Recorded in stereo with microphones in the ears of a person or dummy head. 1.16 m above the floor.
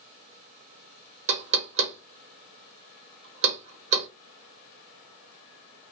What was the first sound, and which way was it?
Knocking, 40° right (ahead or behind).